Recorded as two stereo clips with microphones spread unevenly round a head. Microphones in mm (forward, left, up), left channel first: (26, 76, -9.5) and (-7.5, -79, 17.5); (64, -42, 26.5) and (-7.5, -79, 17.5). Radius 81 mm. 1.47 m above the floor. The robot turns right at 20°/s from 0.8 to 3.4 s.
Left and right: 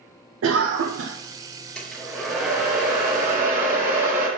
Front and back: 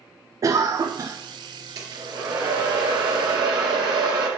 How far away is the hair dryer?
About 1.7 m.